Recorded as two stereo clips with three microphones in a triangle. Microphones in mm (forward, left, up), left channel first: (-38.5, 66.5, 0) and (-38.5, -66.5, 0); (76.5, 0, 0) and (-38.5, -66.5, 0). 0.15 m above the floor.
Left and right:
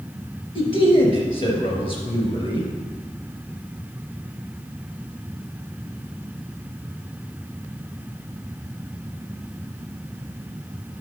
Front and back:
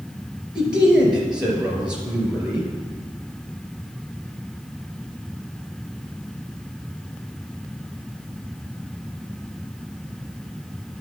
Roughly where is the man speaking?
Behind left.